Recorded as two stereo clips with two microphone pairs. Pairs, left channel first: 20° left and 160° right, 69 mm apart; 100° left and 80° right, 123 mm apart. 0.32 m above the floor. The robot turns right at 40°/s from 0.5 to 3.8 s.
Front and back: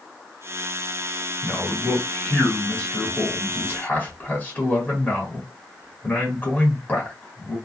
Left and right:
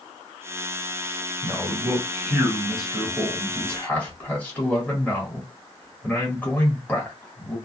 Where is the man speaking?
50° right, 1.4 m; by 7.6 s 45° left, 1.4 m.